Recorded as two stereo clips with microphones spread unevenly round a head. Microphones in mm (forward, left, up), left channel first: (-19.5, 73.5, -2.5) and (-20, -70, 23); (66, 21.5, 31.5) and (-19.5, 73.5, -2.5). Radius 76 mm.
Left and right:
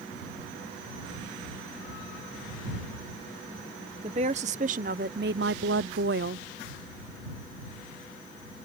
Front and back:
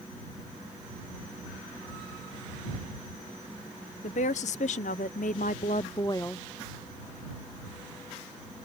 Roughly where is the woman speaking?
Ahead right.